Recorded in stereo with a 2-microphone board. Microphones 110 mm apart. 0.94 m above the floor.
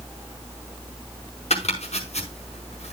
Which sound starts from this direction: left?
Chopping, at 1.5 s.